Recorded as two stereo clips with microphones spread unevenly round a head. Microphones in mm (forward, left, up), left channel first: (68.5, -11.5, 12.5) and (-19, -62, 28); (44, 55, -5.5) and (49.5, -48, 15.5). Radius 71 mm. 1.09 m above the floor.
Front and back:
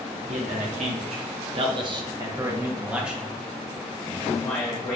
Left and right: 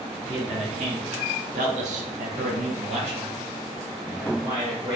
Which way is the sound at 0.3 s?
145° right.